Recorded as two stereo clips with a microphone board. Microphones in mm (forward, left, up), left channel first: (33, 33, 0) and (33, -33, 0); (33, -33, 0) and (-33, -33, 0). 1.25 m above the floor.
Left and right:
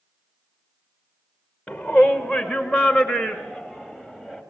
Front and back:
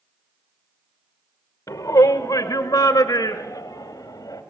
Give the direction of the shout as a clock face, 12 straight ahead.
12 o'clock.